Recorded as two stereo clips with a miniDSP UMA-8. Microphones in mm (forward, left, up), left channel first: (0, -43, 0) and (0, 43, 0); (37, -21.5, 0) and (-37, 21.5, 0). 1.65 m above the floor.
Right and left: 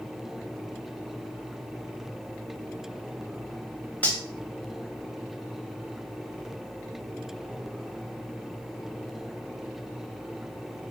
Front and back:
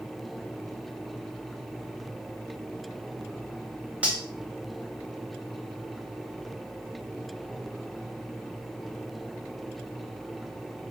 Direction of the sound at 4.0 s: 145° right.